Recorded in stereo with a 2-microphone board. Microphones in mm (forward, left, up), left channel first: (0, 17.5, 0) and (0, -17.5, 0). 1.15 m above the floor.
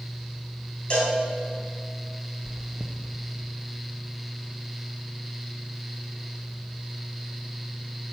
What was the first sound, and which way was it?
A cowbell, 30° left (ahead or behind).